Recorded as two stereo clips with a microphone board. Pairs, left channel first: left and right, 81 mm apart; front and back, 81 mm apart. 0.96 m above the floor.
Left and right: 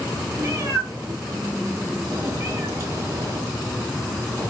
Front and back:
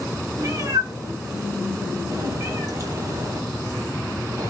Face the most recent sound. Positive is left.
turn(degrees=-140)